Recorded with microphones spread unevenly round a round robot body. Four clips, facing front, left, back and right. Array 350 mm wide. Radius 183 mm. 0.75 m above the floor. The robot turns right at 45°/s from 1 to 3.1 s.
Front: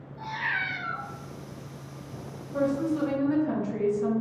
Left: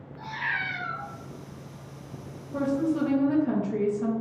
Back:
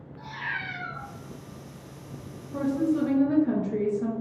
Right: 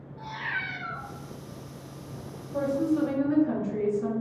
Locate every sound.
0.2 s a cat meowing: 140° left, 1.9 m
2.5 s a woman speaking: 125° left, 1.0 m; by 4.1 s 150° left, 1.0 m